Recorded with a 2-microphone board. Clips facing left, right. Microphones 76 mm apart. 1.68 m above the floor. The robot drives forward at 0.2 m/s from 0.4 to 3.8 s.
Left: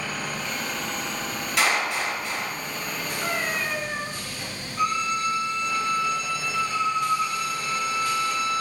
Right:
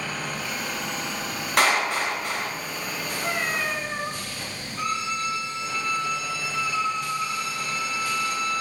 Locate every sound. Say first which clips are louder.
1.6 s a clap: right 2 dB; 45° right (ahead or behind), 1.1 m
3.2 s a cat meowing: right 1 dB; 40° left (ahead or behind), 1.9 m
4.8 s a violin: left 4 dB; 40° left (ahead or behind), 1.1 m